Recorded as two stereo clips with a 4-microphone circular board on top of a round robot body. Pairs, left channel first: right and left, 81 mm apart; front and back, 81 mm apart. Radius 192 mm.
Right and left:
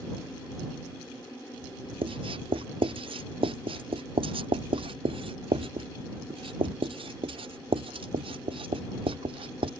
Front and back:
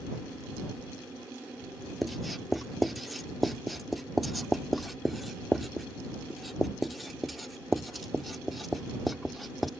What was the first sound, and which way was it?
Writing, 90° left.